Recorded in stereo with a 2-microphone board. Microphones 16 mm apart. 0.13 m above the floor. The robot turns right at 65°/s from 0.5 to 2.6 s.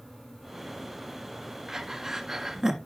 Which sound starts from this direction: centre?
Breathing, at 1.7 s.